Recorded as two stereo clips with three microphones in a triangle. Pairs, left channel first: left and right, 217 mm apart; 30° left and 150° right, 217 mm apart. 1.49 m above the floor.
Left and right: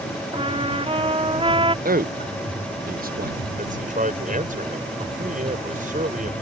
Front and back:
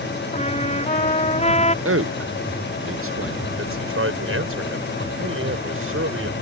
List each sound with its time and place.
0.3 s a trumpet: 25° right
1.9 s a man speaking: 140° right
3.6 s a man speaking: 145° right